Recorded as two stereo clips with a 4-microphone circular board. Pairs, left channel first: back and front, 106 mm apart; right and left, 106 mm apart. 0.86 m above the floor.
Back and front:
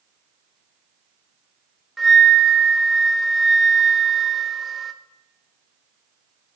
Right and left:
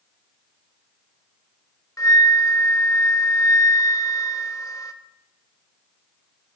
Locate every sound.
2.0 s a flute: 85° right, 0.7 m